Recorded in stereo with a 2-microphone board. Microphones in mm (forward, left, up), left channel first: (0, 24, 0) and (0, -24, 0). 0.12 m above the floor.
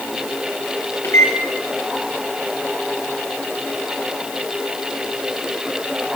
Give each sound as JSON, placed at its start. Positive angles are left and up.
{"t": 1.0, "sound": "a microwave", "side_deg": 60, "distance_m": 2.5}